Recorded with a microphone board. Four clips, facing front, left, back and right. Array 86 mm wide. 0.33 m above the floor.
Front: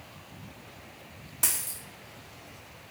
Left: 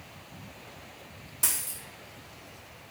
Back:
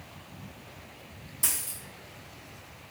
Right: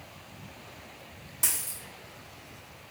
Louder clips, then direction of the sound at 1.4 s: Left 1 dB, front 2 dB; 5° left.